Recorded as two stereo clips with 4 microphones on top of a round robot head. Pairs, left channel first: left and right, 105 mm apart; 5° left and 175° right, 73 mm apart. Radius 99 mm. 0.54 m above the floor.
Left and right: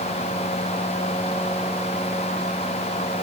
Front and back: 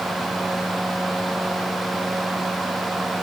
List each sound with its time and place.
Only background noise.